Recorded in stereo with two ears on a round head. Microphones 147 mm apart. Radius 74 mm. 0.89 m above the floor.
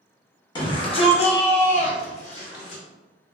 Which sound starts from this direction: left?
A shout, at 0.6 s.